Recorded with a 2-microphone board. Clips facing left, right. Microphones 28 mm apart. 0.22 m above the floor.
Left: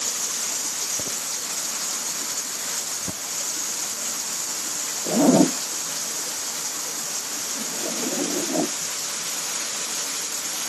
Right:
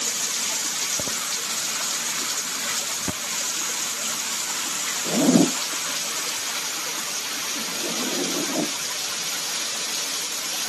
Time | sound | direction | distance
0.0 | running water | 40° right (ahead or behind) | ?
5.1 | a zipper | 40° left (ahead or behind) | ?